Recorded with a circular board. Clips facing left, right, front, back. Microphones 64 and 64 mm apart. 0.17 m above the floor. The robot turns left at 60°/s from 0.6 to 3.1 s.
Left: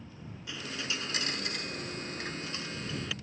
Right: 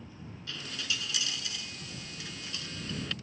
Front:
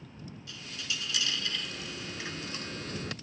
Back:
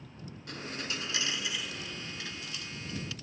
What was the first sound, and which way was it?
A dropped coin, 160° left.